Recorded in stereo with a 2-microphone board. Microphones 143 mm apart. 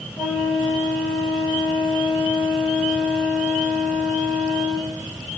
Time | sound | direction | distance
0.2 | a flute | 5° right (ahead or behind) | 6 m